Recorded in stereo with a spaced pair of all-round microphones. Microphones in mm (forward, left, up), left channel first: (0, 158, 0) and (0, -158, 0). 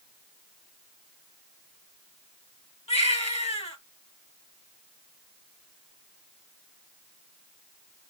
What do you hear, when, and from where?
2.9 s a baby crying: 20° left (ahead or behind), 5.5 m